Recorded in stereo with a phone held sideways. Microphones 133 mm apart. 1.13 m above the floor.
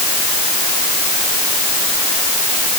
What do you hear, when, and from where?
Only background noise.